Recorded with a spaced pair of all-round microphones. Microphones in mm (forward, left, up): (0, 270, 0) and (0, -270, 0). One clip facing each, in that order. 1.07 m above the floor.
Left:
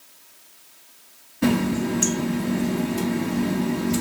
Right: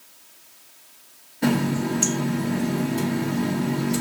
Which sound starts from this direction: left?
A running tap, at 1.4 s.